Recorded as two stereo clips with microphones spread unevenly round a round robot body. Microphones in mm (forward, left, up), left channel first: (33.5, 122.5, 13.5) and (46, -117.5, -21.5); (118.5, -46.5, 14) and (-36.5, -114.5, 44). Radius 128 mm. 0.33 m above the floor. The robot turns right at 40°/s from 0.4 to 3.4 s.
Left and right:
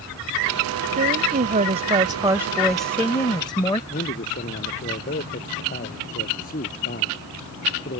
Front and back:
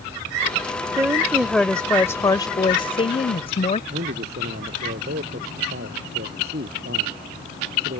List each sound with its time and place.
1.0 s a woman speaking: 80° right; by 3.8 s 20° left
3.9 s a man speaking: 155° left